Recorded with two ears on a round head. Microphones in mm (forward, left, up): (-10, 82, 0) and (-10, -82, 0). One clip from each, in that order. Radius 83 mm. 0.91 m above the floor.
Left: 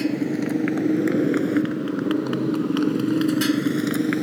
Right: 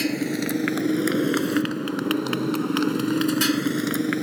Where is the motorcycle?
60° right (ahead or behind); by 4.2 s 20° right (ahead or behind).